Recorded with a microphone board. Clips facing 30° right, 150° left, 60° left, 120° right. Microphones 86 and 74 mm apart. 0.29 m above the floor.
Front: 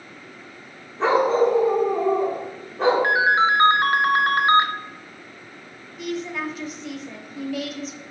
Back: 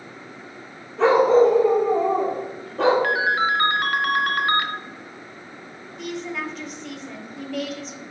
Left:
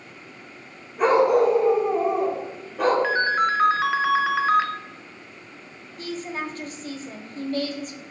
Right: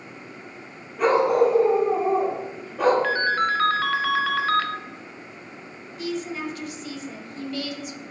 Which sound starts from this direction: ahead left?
A woman speaking, at 6.0 s.